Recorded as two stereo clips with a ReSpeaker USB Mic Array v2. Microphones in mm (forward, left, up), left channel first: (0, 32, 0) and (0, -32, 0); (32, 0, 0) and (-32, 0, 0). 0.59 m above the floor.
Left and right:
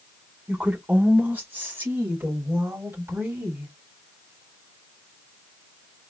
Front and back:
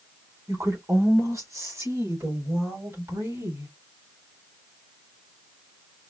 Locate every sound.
0.5 s a woman speaking: 155° right, 1.6 m; by 3.7 s 145° right, 3 m